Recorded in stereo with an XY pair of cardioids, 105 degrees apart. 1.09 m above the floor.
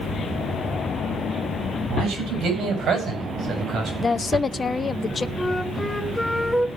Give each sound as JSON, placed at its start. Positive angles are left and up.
{"t": 1.9, "sound": "a man speaking", "azimuth_deg": -65, "distance_m": 7.0}
{"t": 4.0, "sound": "a woman speaking", "azimuth_deg": 25, "distance_m": 0.6}
{"t": 5.4, "sound": "a flute", "azimuth_deg": 5, "distance_m": 1.1}